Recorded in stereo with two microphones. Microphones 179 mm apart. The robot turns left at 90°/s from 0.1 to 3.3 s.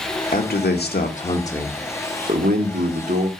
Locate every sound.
0.3 s a man speaking: 125° left, 1.5 m; by 3.3 s 145° right, 1.5 m